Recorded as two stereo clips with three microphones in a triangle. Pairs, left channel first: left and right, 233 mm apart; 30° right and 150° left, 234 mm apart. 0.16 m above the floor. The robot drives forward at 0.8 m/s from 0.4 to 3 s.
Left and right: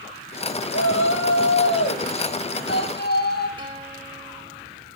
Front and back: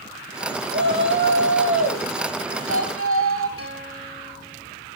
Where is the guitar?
25° right, 4 m.